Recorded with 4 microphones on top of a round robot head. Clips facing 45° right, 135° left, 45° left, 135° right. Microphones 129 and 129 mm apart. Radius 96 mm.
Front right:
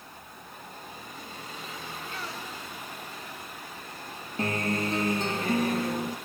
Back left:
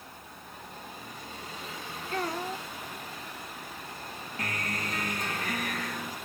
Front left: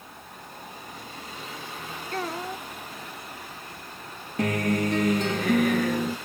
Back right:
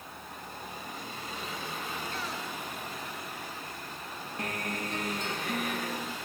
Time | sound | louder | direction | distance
2.1 | a child speaking | back left 6 dB, front left 6 dB | 90° left | ?
4.4 | a guitar | front right 8 dB, front left 12 dB | 20° left | ?